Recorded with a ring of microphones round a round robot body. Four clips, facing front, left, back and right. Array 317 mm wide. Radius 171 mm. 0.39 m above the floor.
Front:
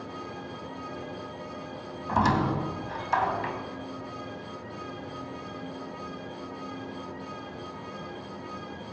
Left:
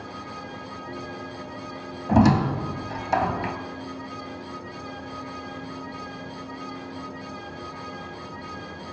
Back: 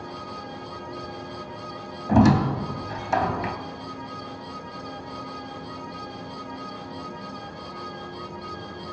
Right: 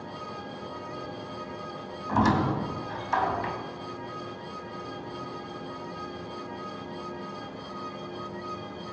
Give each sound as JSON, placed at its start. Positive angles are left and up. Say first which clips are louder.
{"t": 2.1, "sound": "a squeak", "louder": "left 5 dB, back 6 dB", "azimuth_deg": 135, "distance_m": 2.0}